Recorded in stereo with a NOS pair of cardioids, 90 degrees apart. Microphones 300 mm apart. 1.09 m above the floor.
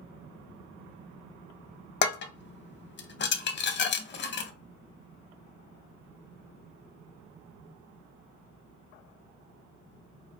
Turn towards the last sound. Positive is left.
turn(degrees=40)